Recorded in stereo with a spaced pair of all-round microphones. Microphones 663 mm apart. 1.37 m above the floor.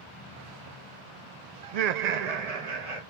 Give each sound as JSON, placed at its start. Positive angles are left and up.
{"t": 1.6, "sound": "laughter", "side_deg": -50, "distance_m": 0.5}